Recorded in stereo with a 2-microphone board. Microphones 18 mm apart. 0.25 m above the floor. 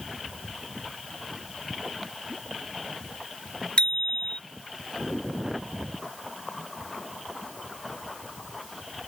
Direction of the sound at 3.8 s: 75° left (ahead or behind).